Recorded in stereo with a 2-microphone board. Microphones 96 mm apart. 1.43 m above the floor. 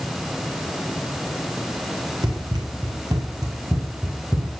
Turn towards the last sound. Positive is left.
turn(degrees=-30)  # may be behind; listen again after turning